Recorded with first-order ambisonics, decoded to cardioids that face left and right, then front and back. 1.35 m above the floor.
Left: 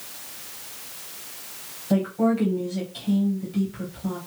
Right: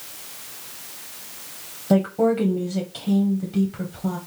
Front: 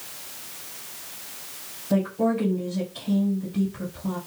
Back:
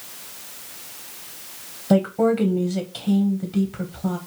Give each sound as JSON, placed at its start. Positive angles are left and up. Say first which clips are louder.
{"t": 1.9, "sound": "a woman speaking", "louder": "right 4 dB, back 5 dB", "azimuth_deg": -145, "distance_m": 0.8}